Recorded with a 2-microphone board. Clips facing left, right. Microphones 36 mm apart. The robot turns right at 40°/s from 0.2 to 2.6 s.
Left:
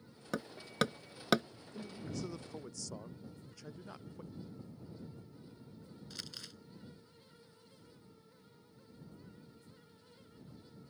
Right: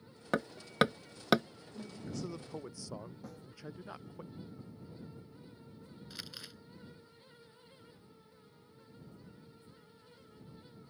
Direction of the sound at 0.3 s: 35° right (ahead or behind).